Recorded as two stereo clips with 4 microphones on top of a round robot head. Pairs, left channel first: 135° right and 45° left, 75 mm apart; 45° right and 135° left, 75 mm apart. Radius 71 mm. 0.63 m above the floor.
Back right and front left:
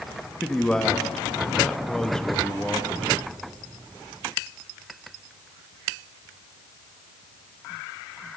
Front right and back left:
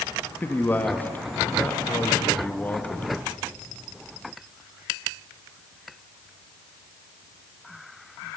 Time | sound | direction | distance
0.4 | a man speaking | 65° right | 1.1 m